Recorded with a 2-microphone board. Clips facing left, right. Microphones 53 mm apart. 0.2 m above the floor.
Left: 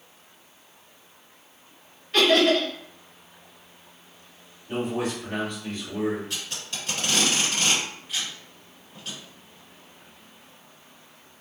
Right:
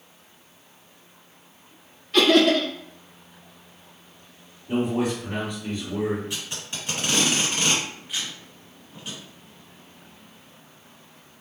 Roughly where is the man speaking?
Centre.